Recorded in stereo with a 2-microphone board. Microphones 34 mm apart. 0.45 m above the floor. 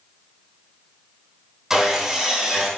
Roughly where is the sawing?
Centre.